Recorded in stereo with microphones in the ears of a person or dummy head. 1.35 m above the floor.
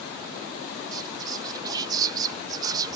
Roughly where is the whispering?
Right.